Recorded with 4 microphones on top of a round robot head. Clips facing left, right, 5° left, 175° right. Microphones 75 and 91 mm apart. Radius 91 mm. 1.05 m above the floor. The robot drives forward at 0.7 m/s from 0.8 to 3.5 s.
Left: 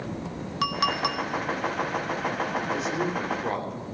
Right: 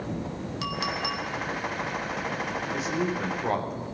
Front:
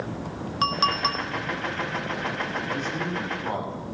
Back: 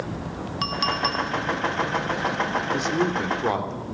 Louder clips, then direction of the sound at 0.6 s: Left 6 dB, front 2 dB; 55° left.